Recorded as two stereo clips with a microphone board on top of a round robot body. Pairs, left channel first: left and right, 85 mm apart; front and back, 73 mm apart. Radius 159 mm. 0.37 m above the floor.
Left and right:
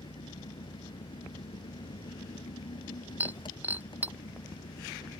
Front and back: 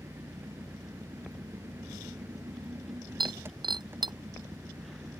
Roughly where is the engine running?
Behind left.